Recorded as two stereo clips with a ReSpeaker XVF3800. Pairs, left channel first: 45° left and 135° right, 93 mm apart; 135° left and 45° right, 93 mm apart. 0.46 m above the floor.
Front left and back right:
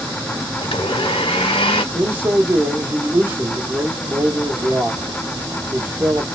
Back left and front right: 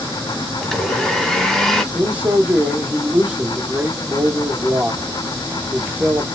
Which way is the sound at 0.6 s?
50° left.